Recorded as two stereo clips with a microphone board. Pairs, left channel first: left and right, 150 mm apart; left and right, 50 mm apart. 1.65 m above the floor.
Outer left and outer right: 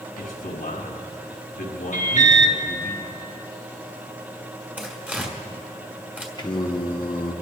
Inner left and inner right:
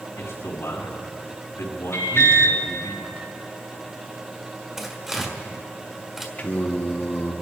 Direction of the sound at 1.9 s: 55° left (ahead or behind).